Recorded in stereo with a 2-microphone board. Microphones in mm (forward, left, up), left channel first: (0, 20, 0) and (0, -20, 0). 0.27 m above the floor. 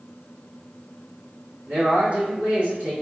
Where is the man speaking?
45° right (ahead or behind), 1.8 m.